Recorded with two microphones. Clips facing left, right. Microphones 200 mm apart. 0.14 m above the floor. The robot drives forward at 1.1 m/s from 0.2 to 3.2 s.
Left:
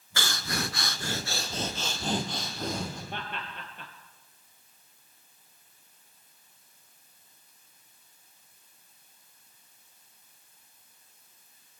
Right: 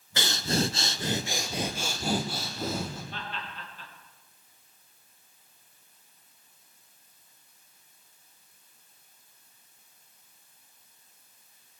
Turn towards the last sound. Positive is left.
turn(degrees=60)  # may be behind; listen again after turning